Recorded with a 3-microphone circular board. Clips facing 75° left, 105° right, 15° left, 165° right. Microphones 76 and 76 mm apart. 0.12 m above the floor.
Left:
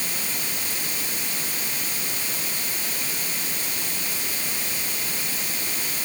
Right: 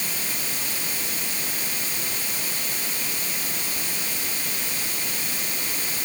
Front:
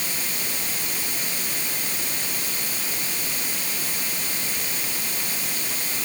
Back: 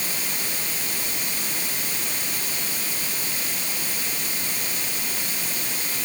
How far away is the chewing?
I don't hear chewing.